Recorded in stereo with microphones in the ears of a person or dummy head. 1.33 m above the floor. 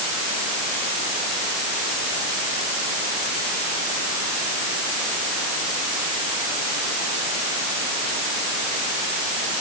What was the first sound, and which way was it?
Only background noise.